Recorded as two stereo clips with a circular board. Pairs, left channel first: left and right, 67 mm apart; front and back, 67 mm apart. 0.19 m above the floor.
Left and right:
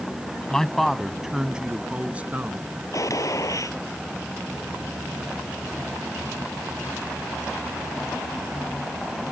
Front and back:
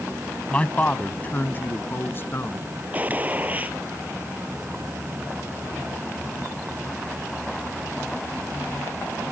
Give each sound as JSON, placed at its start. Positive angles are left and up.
{"t": 0.5, "sound": "a man speaking", "azimuth_deg": 30}
{"t": 2.9, "sound": "a gunshot", "azimuth_deg": 115}